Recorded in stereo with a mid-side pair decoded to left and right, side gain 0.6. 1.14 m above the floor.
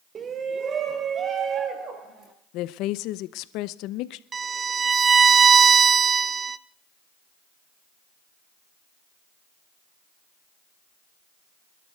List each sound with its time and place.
0.1 s a shout: 35° right, 0.5 m; by 2.3 s 45° right, 2 m
2.5 s a woman speaking: 70° left, 0.6 m
4.3 s a violin: 30° right, 0.5 m